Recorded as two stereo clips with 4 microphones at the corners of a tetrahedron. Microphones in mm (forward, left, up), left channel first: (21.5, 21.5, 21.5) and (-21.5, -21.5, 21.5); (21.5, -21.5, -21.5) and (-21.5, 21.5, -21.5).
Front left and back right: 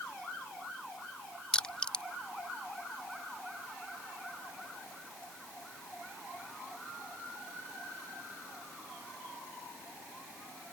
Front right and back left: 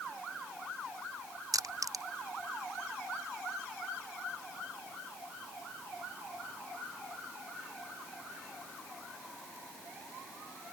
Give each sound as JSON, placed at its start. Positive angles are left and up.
{"t": 1.5, "sound": "crushing", "azimuth_deg": 120}